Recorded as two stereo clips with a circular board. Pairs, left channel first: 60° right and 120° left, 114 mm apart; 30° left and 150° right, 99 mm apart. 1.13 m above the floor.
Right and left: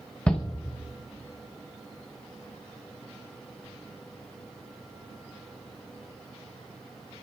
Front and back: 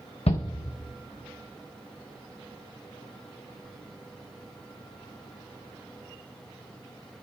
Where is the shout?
20° left, 0.6 m.